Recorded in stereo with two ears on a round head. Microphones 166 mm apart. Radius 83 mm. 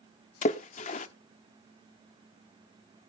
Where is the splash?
40° left (ahead or behind), 0.9 m.